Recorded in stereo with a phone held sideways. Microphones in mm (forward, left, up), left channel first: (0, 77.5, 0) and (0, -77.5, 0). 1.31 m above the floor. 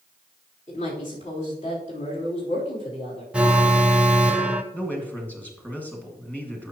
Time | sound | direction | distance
0.7 | a woman speaking | 50° left (ahead or behind) | 3.5 m
3.3 | an alarm | 5° right (ahead or behind) | 0.7 m
4.7 | a man speaking | 10° left (ahead or behind) | 2.5 m